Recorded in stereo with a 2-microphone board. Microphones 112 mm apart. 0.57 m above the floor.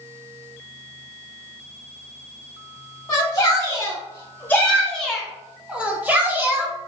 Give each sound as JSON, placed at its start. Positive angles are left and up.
{"t": 3.1, "sound": "a shout", "side_deg": 30, "distance_m": 1.3}